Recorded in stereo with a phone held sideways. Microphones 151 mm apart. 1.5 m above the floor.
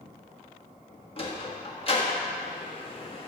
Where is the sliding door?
40° left (ahead or behind), 1.4 m.